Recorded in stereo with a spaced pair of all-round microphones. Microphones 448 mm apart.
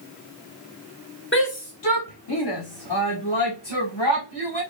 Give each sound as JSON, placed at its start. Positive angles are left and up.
{"t": 1.3, "sound": "a shout", "side_deg": 25, "distance_m": 0.7}